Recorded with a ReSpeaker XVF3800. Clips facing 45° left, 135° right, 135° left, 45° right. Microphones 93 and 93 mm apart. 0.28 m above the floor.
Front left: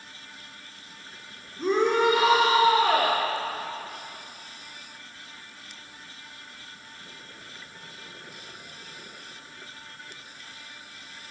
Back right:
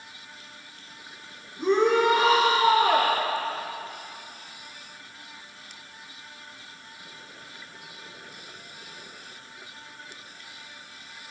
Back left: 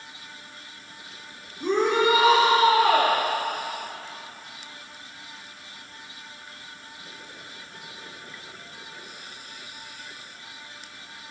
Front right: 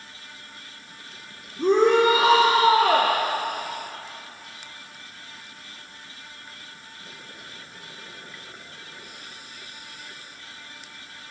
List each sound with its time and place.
1.6 s a shout: 45° right, 3.5 m